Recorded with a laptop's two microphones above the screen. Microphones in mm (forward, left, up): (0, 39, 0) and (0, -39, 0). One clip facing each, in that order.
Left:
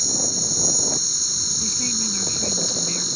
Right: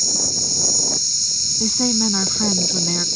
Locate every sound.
0.0 s an insect: 50° left (ahead or behind)
1.6 s a woman speaking: 55° right (ahead or behind)